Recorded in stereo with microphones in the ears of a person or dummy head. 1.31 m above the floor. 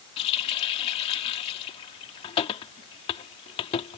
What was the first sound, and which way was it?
A running tap, 30° left (ahead or behind).